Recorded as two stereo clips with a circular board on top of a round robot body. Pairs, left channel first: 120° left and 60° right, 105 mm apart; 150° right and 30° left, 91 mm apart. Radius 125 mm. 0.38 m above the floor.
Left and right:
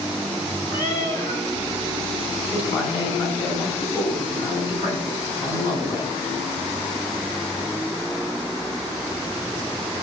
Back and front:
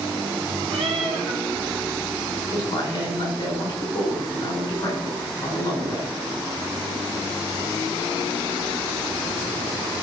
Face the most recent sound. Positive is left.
turn(degrees=160)